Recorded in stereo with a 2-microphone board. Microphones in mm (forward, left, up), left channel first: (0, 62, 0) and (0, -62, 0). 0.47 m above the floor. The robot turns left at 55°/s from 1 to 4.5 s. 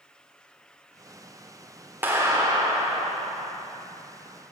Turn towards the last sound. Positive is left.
turn(degrees=-160)